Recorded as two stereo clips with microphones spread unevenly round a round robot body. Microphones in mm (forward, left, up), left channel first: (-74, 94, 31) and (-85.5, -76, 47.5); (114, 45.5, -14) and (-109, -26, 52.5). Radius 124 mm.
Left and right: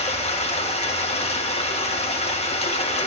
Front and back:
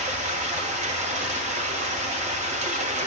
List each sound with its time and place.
0.0 s running water: 130° left, 2.5 m